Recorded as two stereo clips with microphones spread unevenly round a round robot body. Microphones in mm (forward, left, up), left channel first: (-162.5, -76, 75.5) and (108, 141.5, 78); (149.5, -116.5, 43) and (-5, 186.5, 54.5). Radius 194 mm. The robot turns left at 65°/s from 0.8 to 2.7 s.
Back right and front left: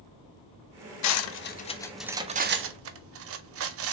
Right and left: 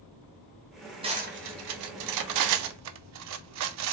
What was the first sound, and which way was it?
Cutlery clinking, 170° right.